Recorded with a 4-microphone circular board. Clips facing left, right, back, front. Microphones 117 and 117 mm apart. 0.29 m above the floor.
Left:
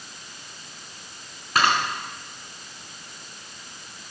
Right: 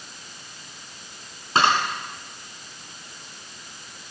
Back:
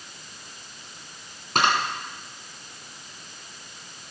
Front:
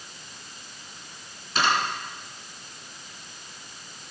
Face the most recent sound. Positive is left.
turn(degrees=-150)